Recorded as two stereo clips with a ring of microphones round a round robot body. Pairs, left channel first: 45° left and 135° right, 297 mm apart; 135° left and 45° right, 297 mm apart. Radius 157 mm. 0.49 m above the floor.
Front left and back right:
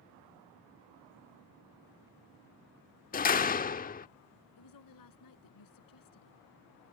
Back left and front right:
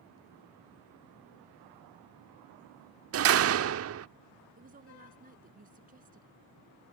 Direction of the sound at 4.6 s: 20° left.